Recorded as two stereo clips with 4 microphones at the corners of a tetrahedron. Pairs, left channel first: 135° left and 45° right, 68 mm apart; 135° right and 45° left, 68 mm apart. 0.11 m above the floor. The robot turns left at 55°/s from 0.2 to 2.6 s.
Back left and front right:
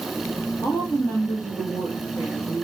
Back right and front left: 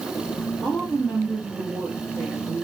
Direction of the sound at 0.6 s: 145° left.